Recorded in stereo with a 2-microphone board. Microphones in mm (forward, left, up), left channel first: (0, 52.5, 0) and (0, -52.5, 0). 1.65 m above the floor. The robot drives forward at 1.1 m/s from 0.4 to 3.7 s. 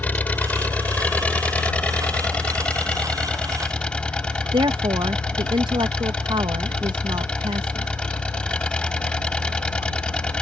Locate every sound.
0.0 s an engine running: 15° left (ahead or behind); by 10.4 s 10° left (ahead or behind)
4.5 s a woman speaking: 50° right (ahead or behind)